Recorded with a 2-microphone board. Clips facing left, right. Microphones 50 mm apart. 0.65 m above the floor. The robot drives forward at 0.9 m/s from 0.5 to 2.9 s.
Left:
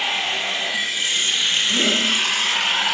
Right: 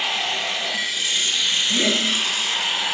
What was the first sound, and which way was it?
Running water, 30° left (ahead or behind).